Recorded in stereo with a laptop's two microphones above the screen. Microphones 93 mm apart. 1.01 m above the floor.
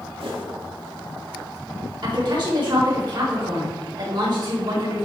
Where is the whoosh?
80° right, 1.9 m.